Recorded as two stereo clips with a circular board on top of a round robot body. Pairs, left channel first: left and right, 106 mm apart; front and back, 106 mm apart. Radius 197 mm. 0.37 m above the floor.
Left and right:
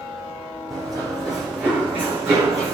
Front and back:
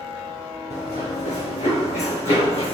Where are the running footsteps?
5° left, 2.5 m; by 2.8 s 30° right, 2 m.